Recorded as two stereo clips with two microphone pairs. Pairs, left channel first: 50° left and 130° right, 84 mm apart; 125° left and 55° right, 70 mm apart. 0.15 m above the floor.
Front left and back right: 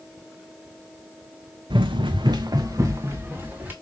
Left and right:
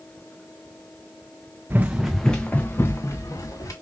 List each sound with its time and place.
1.7 s running footsteps: 115° right, 0.6 m; by 3.7 s 160° left, 1.4 m